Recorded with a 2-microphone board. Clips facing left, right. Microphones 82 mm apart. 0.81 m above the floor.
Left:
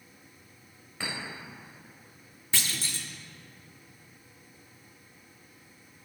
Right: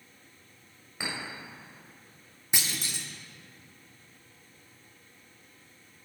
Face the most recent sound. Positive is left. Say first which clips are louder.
# even
turn(degrees=-20)  # may be behind; listen again after turning